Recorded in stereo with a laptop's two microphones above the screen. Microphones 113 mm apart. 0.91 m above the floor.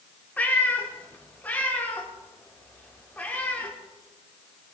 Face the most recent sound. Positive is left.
turn(degrees=15)  # may be behind; listen again after turning